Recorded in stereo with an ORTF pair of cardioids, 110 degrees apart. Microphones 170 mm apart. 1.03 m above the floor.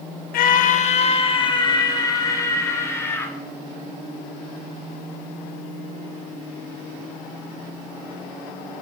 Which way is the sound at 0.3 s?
65° left.